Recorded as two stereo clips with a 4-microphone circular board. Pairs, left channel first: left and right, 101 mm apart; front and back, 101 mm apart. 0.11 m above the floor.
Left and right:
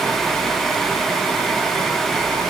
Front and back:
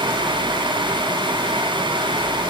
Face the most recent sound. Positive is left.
No sound to turn to.